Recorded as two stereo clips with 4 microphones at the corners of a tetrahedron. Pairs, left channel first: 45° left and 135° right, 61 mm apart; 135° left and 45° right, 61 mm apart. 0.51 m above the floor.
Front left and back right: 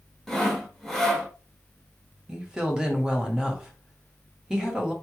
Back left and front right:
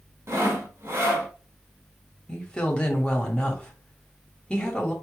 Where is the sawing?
40° right, 1.3 m.